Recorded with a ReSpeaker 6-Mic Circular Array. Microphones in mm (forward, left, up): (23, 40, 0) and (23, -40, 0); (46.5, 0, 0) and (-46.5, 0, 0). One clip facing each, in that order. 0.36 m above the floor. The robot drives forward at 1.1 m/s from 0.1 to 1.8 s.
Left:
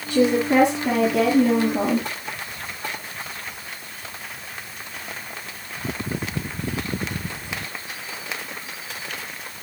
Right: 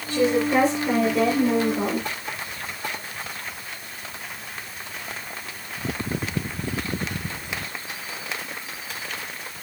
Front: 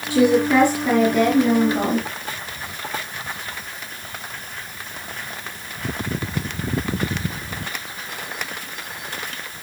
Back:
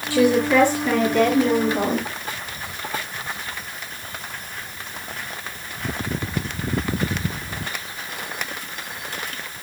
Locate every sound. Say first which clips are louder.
0.1 s a woman speaking: left 2 dB, front 1 dB; 60° left, 5.5 m; by 2.1 s 80° left, 4.5 m